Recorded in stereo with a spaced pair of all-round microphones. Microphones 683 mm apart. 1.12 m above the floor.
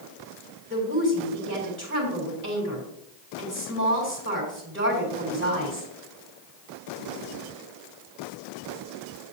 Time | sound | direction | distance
0.7 | a woman speaking | 15° right (ahead or behind) | 4 m